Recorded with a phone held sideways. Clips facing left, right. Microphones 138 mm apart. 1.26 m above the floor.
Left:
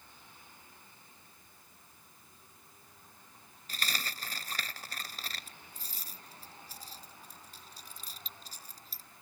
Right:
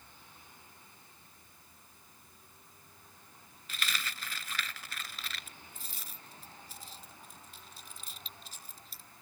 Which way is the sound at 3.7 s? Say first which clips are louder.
Even; 40° left (ahead or behind).